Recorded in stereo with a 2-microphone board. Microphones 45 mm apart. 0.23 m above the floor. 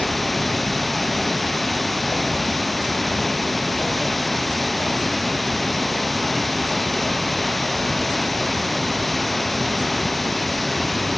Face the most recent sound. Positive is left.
turn(degrees=0)  # may be behind; listen again after turning